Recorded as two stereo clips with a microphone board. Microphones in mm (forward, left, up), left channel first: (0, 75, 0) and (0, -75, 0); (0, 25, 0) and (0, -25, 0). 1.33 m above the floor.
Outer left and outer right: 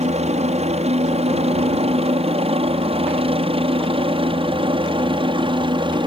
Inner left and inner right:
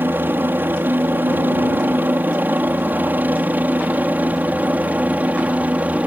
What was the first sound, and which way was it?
A helicopter, 45° right (ahead or behind).